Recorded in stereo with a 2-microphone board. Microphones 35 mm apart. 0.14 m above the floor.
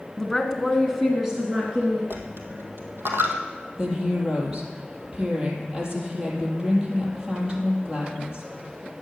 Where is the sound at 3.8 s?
20° right (ahead or behind), 4 m.